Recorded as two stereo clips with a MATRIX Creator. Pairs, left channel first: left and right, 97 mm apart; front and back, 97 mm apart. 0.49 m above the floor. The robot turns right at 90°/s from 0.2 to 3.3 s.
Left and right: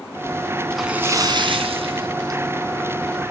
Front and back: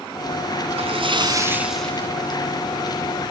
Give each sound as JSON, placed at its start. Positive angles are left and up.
{"t": 0.7, "sound": "a splash", "azimuth_deg": 175, "distance_m": 3.0}